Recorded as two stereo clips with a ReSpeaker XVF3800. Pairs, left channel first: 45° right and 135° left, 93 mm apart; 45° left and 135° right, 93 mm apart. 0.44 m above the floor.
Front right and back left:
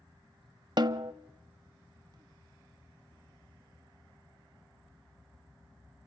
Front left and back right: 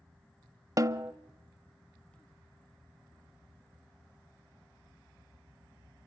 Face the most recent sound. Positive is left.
turn(degrees=175)